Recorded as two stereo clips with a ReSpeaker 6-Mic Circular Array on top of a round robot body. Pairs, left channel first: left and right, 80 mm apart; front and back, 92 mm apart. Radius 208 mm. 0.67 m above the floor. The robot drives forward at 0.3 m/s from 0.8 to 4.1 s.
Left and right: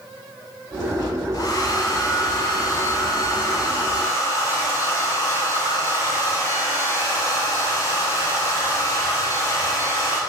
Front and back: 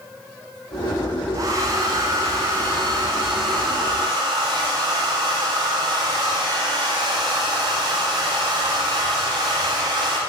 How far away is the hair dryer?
About 3.5 m.